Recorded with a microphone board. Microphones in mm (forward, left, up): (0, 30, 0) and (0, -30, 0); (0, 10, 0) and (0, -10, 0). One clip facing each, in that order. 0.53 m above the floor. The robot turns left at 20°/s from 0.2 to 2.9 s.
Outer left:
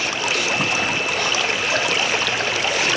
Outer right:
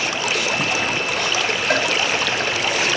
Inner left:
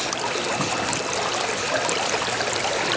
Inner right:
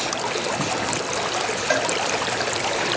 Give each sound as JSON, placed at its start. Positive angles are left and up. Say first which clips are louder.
{"t": 1.7, "sound": "a cowbell", "louder": "outer right 4 dB, inner right 4 dB", "side_deg": -55, "distance_m": 3.5}